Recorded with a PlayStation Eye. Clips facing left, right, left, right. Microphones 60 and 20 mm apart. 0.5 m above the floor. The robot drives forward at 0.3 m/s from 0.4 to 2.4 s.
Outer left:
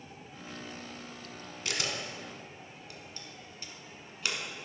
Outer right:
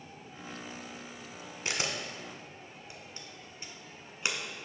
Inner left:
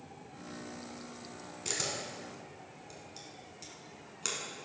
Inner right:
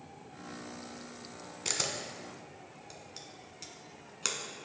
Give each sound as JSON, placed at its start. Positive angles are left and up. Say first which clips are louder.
{"t": 1.6, "sound": "a camera shutter", "louder": "outer right 1 dB, inner right 2 dB", "side_deg": -25, "distance_m": 1.3}